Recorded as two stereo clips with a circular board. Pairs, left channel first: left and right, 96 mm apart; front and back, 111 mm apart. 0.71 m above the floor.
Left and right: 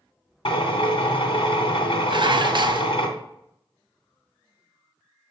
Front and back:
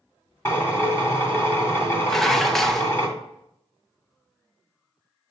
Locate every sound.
0.5 s a drill: 70° left, 1.8 m
2.1 s dishes clattering: 85° right, 0.5 m